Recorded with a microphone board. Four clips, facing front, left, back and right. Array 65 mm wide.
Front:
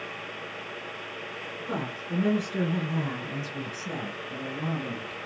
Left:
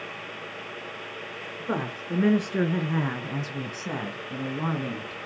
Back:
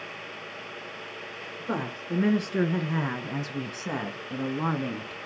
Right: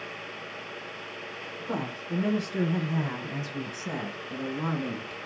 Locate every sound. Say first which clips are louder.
1.6 s a woman speaking: left 3 dB, back 2 dB; 120° left, 4 m; by 5.2 s 175° left, 3 m